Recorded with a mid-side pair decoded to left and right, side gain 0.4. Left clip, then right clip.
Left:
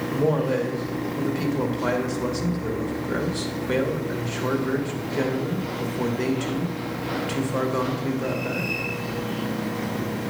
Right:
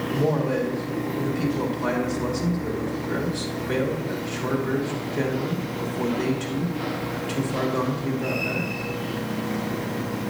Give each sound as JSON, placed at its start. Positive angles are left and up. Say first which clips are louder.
{"t": 0.1, "sound": "a man speaking", "louder": "left 1 dB", "azimuth_deg": 20, "distance_m": 2.0}